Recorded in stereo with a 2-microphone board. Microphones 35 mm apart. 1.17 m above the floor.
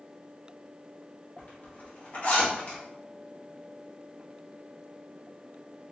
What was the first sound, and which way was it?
A zipper, 50° left (ahead or behind).